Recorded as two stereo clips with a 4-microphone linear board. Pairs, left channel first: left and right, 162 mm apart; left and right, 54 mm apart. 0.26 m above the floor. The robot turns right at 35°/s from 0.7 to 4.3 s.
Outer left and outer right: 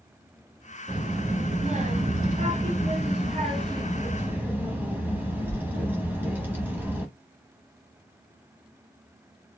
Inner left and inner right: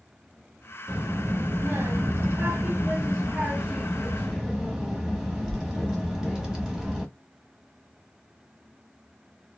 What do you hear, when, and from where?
0.9 s a child speaking: 135° right, 1.2 m; by 7.1 s 15° right, 1.2 m